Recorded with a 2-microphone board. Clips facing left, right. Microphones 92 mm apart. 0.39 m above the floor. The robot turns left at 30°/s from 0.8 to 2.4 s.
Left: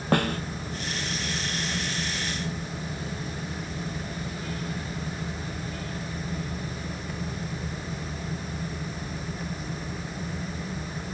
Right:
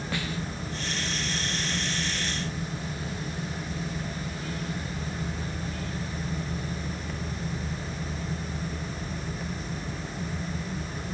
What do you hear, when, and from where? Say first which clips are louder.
0.1 s a snare drum: left 10 dB; 55° left (ahead or behind)